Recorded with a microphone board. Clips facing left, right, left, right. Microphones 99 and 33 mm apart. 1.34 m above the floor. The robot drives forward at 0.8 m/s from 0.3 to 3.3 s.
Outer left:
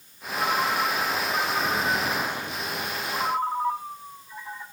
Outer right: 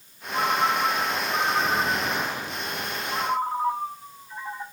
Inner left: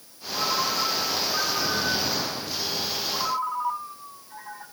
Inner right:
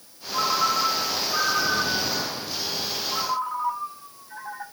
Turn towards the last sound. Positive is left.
turn(degrees=-45)  # may be behind; listen again after turning